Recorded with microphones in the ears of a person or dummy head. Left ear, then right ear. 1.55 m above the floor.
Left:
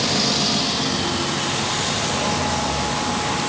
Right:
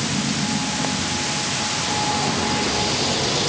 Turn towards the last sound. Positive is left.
No sound to turn to.